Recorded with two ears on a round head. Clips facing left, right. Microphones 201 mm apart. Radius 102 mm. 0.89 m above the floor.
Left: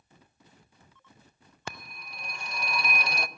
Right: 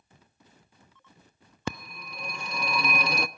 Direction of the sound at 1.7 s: 70° right (ahead or behind).